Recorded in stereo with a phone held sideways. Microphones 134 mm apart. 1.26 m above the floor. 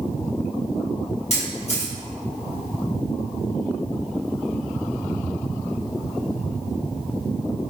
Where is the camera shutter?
50° left (ahead or behind), 1.7 m.